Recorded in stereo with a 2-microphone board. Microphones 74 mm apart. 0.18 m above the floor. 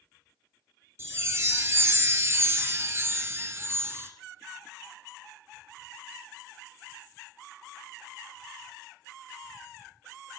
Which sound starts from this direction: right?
A chime, at 1.0 s.